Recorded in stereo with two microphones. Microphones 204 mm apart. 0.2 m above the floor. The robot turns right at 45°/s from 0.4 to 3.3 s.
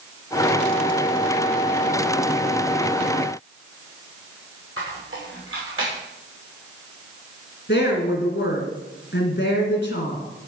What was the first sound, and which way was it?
A squeak, 80° right.